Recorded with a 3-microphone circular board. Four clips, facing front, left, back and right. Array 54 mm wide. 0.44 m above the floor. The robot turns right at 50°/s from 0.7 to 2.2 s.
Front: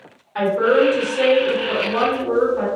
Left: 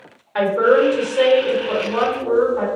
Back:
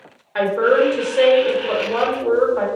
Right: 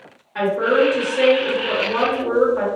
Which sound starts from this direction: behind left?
A woman speaking, at 0.3 s.